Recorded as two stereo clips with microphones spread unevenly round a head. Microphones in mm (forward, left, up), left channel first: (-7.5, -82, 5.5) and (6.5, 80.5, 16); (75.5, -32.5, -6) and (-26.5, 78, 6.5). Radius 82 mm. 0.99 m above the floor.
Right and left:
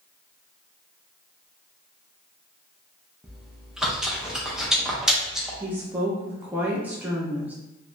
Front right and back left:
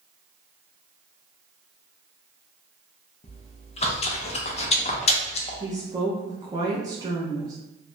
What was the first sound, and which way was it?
Chewing, 5° right.